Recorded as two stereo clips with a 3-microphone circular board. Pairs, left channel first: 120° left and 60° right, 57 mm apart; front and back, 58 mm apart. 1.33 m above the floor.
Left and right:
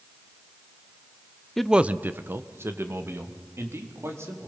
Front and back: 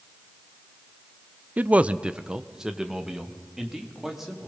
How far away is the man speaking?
About 0.5 m.